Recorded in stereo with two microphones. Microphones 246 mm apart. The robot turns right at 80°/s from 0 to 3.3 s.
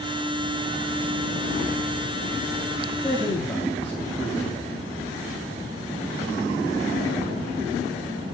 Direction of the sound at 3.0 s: 25° right (ahead or behind).